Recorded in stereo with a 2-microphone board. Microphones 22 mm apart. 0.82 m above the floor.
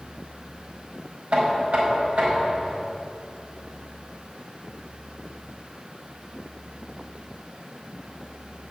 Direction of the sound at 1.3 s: 80° right.